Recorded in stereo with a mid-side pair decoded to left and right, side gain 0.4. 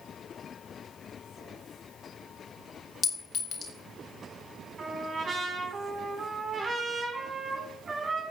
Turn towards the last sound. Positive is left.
turn(degrees=-45)